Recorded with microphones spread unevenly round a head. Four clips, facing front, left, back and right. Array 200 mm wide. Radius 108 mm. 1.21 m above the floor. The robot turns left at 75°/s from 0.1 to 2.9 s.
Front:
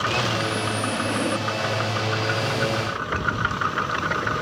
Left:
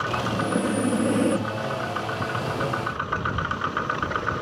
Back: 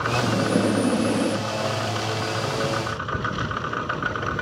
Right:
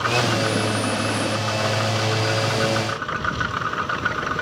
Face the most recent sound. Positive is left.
turn(degrees=-5)